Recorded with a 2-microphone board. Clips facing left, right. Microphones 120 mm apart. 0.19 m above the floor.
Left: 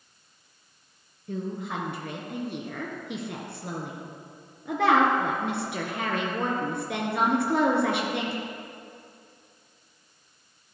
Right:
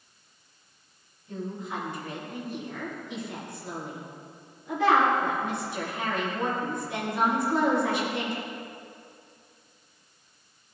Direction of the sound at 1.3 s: 65° left (ahead or behind).